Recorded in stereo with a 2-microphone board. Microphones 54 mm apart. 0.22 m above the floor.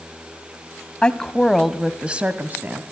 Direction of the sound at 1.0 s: 20° left (ahead or behind).